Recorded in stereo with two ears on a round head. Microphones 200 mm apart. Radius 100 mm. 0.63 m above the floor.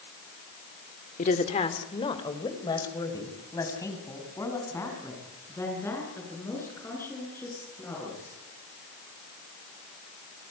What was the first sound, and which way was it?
A woman speaking, 35° left (ahead or behind).